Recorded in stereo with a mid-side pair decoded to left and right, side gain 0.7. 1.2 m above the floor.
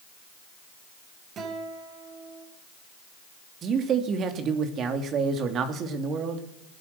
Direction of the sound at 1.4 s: 40° right.